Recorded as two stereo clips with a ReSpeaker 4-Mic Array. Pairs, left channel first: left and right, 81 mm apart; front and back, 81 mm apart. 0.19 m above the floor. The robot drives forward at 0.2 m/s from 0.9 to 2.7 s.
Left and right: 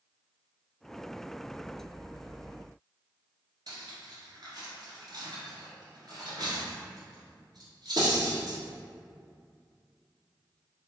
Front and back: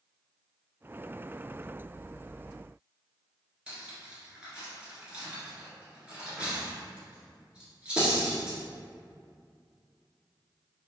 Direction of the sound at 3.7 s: 105° right.